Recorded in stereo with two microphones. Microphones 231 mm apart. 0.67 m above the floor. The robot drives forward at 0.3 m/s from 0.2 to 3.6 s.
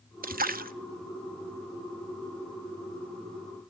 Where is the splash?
40° right (ahead or behind), 0.6 m.